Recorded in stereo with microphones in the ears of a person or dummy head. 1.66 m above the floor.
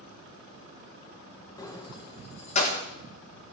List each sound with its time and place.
1.6 s keys jangling: 20° left (ahead or behind), 1.1 m; by 2.8 s 40° left (ahead or behind), 1.5 m